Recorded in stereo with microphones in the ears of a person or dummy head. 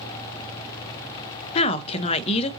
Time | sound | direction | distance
1.6 | a woman speaking | 35° left (ahead or behind) | 0.5 m